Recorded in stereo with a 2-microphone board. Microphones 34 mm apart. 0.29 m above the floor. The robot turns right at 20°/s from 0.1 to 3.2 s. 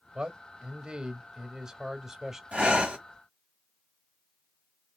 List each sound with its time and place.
0.1 s a man speaking: 65° right, 1.1 m; by 2.4 s 20° right, 1.1 m
2.5 s breathing: 40° right (ahead or behind), 1.8 m